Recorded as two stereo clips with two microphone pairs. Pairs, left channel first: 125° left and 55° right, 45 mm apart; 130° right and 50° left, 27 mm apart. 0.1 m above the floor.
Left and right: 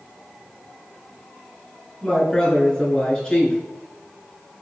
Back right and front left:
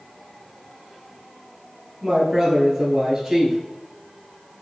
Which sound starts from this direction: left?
A woman speaking, at 2.0 s.